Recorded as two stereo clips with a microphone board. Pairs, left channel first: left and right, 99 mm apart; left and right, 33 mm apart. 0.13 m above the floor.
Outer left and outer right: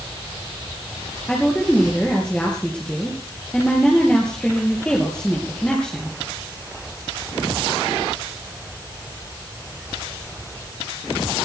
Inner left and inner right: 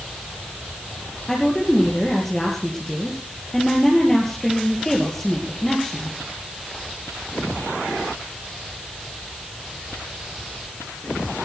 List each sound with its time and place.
1.3 s a woman speaking: 10° left (ahead or behind), 3.5 m